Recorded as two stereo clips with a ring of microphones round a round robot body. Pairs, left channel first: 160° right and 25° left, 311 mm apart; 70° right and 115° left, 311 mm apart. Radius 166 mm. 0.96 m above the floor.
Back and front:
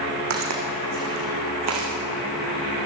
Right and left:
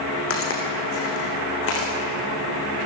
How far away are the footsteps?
About 4.5 m.